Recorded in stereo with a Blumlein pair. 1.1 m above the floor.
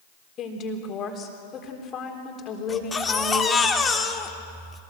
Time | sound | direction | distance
0.4 | a woman speaking | 30° left | 4 m
2.7 | a baby crying | 15° left | 2.0 m